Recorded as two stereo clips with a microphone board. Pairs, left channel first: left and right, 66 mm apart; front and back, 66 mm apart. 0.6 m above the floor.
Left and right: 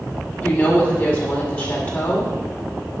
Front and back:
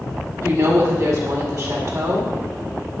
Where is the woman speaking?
155° left, 1.8 m.